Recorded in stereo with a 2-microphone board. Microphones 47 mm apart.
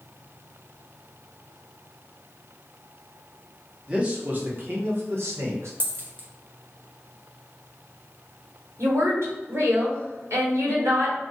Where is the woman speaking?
80° right, 1.4 m.